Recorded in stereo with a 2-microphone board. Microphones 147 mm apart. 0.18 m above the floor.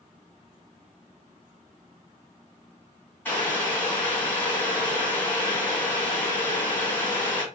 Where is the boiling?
15° left (ahead or behind), 1.2 m.